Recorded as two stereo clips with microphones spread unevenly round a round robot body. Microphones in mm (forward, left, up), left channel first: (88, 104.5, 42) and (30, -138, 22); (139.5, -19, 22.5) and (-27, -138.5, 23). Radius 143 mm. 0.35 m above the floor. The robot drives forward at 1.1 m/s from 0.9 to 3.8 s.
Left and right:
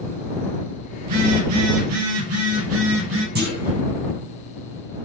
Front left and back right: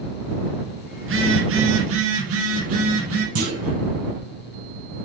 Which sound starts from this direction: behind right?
A phone buzzing, at 1.0 s.